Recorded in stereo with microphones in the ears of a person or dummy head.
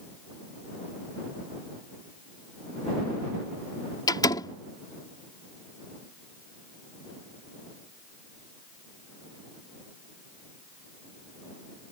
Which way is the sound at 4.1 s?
25° left (ahead or behind).